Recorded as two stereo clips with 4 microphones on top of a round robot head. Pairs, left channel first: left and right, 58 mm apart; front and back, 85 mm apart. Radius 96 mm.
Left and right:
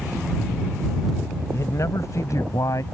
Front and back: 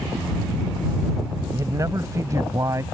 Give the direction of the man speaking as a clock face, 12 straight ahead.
8 o'clock.